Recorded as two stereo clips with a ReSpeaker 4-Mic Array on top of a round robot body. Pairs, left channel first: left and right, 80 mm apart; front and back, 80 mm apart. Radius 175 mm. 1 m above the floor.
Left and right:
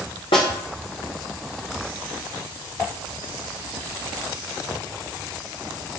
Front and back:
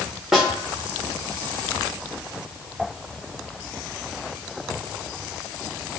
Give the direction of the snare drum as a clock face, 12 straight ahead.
9 o'clock.